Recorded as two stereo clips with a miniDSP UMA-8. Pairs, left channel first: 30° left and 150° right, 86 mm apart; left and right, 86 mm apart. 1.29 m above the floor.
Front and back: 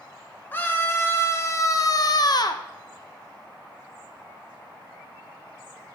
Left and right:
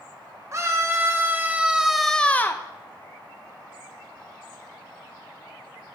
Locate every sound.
0.5 s a scream: 35° right, 1.1 m; by 2.6 s 40° left, 0.5 m